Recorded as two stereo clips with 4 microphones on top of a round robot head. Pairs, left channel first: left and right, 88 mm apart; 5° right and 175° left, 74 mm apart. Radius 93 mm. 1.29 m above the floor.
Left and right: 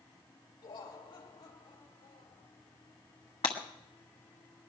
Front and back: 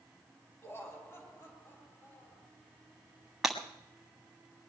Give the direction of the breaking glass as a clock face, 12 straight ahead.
9 o'clock.